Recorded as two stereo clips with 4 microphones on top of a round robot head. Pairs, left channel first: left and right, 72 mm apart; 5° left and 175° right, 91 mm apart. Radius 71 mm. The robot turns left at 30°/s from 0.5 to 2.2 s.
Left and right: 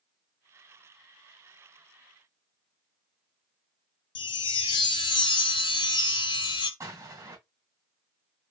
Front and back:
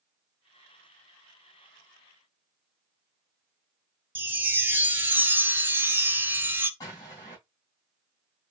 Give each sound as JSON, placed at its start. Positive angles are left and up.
{"t": 4.2, "sound": "a chime", "azimuth_deg": 115, "distance_m": 0.9}
{"t": 6.8, "sound": "an explosion", "azimuth_deg": -55, "distance_m": 3.0}